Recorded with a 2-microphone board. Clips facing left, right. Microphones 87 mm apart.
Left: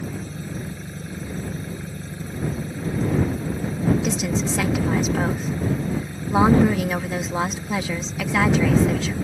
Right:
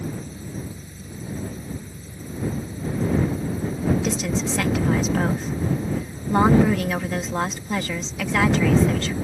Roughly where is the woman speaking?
Centre.